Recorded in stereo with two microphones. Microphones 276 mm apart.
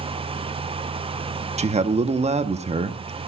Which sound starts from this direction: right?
A man speaking, at 1.6 s.